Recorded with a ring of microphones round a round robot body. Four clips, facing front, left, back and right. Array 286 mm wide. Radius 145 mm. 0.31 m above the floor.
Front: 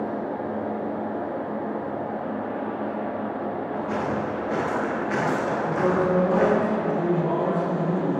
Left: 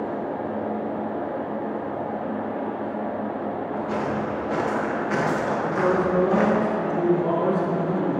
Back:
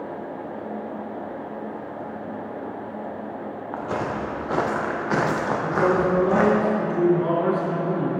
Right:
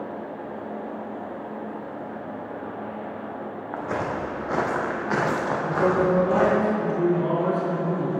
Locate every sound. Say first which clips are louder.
3.7 s footsteps: right 1 dB, back 2 dB; 135° right, 3.5 m; by 6.6 s 165° right, 3 m
5.6 s a man speaking: right 2 dB, back 3 dB; 170° right, 5 m